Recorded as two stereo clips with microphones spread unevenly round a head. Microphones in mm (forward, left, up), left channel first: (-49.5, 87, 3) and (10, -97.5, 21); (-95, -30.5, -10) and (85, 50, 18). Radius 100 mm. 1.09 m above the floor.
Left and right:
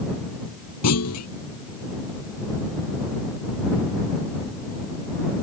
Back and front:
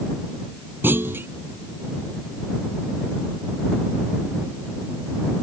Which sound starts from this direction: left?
A clunk, at 0.8 s.